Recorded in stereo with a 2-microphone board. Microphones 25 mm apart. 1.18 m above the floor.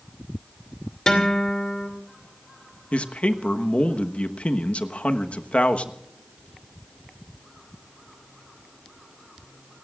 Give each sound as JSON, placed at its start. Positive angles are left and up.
{"t": 1.1, "sound": "a guitar", "side_deg": 30, "distance_m": 2.5}
{"t": 2.9, "sound": "a man speaking", "side_deg": 65, "distance_m": 1.2}